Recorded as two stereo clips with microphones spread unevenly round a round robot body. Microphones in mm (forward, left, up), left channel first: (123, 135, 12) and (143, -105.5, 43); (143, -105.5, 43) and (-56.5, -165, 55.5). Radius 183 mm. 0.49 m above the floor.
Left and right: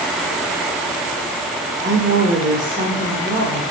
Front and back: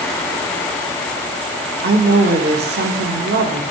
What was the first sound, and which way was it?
A woman speaking, 145° right.